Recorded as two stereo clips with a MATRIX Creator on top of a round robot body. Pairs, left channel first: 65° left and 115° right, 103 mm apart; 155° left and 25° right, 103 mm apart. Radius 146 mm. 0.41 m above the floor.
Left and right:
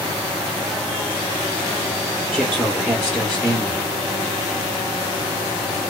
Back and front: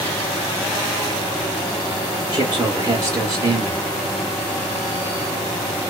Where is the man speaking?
30° right, 1.2 m.